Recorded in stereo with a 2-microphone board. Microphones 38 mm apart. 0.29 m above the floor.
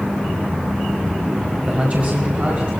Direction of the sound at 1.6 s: 35° right (ahead or behind).